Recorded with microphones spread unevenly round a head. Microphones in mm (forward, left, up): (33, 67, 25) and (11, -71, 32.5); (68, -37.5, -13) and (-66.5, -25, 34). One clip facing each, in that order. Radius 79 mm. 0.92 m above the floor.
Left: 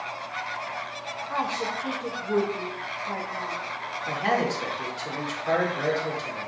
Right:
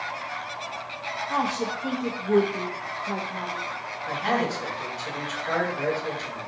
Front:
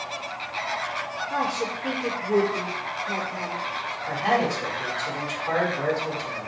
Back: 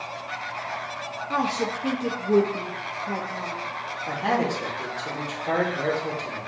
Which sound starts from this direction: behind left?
A man speaking, at 4.1 s.